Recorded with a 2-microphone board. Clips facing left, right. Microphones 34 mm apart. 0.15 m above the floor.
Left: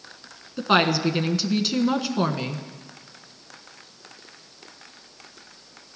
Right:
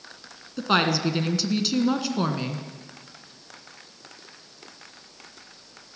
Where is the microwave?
I don't hear a microwave.